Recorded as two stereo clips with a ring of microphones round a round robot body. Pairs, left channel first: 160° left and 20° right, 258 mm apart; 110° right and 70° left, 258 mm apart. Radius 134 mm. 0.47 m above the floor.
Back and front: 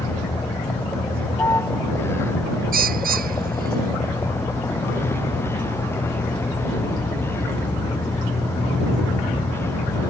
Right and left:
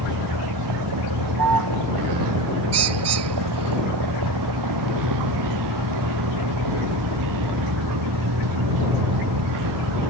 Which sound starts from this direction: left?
A vehicle, at 0.0 s.